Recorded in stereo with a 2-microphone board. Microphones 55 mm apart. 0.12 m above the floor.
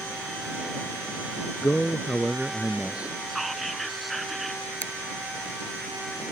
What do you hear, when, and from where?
1.6 s a man speaking: 30° left (ahead or behind); by 3.2 s 25° right (ahead or behind)
3.3 s whispering: centre (ahead or behind)
4.8 s a finger snap: 25° left (ahead or behind)